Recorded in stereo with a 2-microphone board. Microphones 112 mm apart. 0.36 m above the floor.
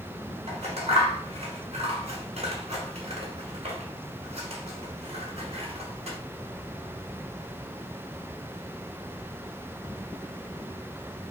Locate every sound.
0.5 s scissors: 75° right (ahead or behind), 1.0 m